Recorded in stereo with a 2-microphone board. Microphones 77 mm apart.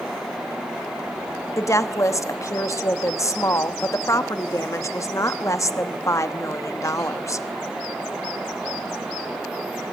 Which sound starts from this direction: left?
A woman speaking, at 1.6 s.